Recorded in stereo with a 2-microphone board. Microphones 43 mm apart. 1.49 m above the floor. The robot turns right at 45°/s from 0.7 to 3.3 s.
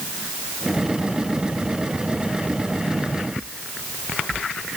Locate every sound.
Only background noise.